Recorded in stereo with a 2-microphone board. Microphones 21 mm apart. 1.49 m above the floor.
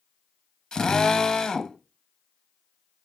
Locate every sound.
0.7 s a drill: 35° left (ahead or behind), 1.0 m